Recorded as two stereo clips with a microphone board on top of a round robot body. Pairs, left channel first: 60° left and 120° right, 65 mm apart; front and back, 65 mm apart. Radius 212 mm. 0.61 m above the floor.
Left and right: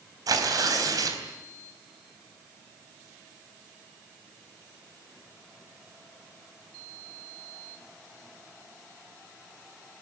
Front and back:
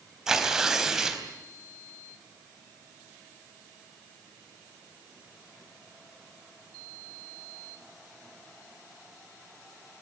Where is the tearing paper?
95° right, 4.5 m.